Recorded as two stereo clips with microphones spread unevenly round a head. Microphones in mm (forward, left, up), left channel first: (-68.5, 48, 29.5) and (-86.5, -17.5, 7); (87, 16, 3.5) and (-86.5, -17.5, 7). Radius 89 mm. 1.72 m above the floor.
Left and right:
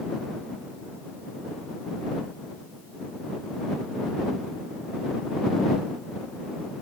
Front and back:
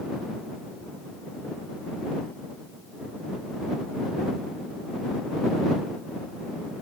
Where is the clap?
No clap in this recording.